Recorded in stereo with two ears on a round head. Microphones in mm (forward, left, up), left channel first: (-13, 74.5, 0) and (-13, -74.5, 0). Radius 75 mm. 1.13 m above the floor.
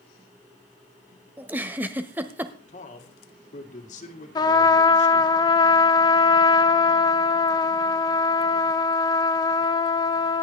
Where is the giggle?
10° right (ahead or behind), 1.0 m.